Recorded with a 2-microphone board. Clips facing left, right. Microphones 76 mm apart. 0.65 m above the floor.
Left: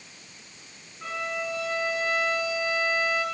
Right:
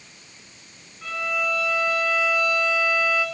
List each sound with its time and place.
1.0 s a violin: 25° left (ahead or behind), 3 m